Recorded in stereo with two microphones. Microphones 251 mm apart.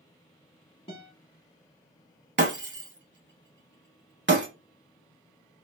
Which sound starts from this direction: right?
Breaking glass, at 2.4 s.